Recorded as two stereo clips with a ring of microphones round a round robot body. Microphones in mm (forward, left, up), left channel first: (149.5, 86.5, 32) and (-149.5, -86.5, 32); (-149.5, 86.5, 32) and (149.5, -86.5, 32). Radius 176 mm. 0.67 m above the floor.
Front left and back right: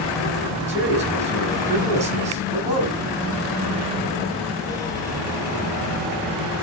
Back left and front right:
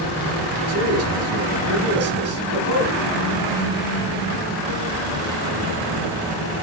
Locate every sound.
0.7 s a man speaking: 80° right, 5.5 m